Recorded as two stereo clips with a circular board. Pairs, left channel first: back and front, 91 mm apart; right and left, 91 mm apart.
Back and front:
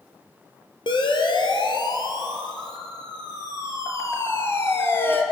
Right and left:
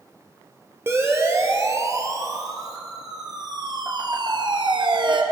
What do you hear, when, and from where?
0.9 s a siren: 150° left, 4 m; by 5.2 s 115° left, 3.5 m